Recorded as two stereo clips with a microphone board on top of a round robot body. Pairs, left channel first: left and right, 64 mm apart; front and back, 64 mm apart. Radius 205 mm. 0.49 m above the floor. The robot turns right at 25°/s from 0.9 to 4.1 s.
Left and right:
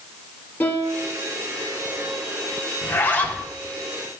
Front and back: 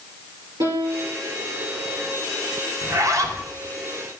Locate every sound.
0.6 s a piano: 155° left, 5 m; by 1.2 s 165° left, 5 m
2.8 s a zipper: 145° left, 1.7 m; by 3.4 s 160° left, 1.7 m